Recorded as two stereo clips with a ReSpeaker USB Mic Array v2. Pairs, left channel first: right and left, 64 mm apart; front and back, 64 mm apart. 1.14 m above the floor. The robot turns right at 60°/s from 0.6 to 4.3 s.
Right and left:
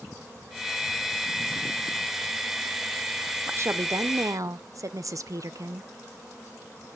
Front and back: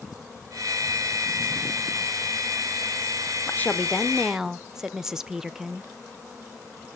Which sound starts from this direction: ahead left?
A woman speaking, at 3.5 s.